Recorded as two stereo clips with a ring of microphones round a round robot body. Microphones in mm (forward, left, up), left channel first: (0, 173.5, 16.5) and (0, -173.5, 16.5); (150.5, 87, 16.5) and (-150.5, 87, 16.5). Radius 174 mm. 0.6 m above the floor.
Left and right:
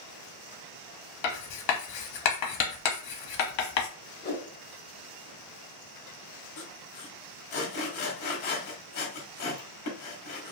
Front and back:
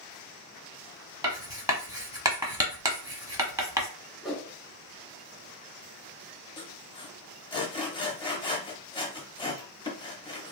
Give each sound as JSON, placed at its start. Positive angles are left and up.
{"t": 1.2, "sound": "writing", "azimuth_deg": 100, "distance_m": 1.0}
{"t": 4.2, "sound": "a whoosh", "azimuth_deg": 90, "distance_m": 0.9}
{"t": 6.6, "sound": "sawing", "azimuth_deg": 70, "distance_m": 1.0}